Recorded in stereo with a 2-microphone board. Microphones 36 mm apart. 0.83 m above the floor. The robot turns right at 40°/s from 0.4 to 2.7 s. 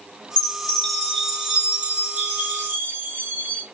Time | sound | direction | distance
0.4 | a chime | 150° left | 2.5 m